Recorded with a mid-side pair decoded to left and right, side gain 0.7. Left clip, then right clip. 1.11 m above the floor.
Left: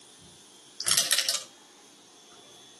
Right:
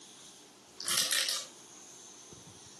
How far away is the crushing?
About 4.5 m.